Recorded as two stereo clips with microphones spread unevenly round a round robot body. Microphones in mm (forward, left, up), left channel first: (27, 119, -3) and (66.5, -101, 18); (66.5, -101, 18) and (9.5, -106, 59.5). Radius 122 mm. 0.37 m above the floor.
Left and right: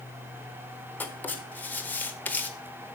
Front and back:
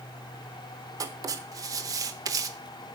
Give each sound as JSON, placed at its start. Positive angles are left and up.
{"t": 1.0, "sound": "writing", "azimuth_deg": 155, "distance_m": 0.8}